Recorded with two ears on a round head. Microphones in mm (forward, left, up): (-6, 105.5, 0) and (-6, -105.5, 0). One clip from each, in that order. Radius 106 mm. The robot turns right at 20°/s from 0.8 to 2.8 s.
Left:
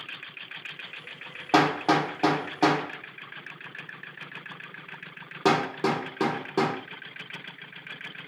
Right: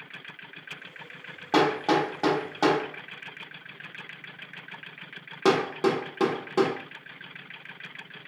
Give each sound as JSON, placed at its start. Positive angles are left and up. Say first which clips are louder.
{"t": 1.5, "sound": "hammering", "louder": "left 1 dB", "side_deg": 10, "distance_m": 1.3}